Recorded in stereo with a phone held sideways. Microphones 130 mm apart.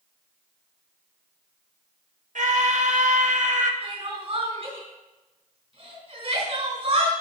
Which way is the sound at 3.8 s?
50° right (ahead or behind).